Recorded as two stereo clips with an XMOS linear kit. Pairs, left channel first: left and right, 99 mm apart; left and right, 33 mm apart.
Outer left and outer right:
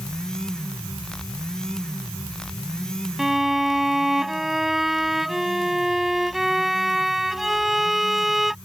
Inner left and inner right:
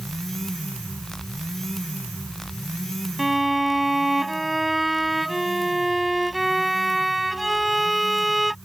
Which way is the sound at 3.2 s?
5° right (ahead or behind).